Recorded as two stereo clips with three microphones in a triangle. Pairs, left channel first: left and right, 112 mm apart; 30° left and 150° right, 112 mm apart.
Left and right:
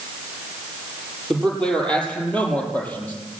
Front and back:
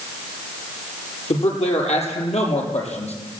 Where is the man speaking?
5° left, 7 m; by 3.1 s 15° left, 7 m.